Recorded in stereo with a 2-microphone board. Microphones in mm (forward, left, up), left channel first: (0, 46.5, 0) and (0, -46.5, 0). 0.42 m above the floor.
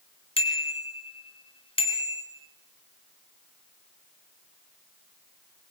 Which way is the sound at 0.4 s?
80° left.